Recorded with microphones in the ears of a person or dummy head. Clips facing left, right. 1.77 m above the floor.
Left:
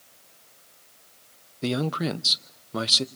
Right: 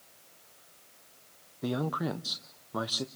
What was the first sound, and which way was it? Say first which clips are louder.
A man speaking: left 5 dB; 40° left (ahead or behind).